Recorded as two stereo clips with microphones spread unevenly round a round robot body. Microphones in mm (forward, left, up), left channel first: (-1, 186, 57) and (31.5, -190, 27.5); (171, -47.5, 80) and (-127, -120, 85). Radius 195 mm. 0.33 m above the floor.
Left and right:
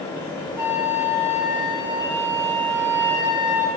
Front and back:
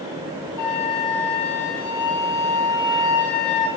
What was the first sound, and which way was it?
A flute, straight ahead.